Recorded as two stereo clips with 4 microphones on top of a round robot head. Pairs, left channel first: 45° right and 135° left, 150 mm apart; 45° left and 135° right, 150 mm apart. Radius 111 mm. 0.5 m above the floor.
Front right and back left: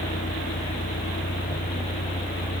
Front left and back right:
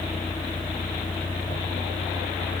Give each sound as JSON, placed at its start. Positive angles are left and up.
{"t": 0.0, "sound": "a vehicle", "azimuth_deg": -30}